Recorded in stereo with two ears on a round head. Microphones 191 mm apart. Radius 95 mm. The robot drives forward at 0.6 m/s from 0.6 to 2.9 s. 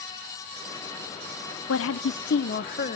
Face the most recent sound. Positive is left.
turn(degrees=40)  # may be behind; listen again after turning